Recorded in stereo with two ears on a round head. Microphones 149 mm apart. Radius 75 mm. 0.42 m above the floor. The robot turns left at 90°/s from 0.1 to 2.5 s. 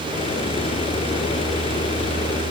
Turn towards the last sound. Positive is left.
No sound to turn to.